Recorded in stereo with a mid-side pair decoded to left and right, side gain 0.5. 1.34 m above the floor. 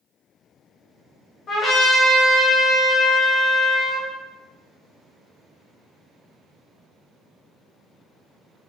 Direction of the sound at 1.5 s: 50° left.